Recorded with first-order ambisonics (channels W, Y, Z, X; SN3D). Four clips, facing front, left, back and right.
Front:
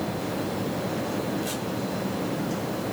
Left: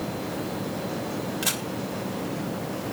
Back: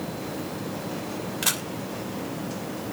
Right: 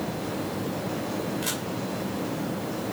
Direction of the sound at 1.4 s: 160° left.